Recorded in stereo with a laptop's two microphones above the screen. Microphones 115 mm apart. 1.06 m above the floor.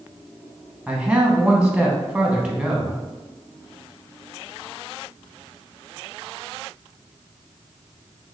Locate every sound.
0.9 s a man speaking: 10° right (ahead or behind), 0.9 m